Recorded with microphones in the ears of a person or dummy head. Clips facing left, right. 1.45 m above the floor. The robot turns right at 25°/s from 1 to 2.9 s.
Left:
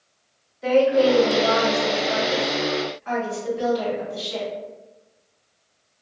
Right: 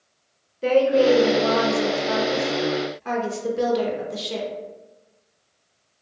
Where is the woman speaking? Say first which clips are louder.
Even; 130° right, 0.7 m; by 4.5 s 85° right, 0.7 m.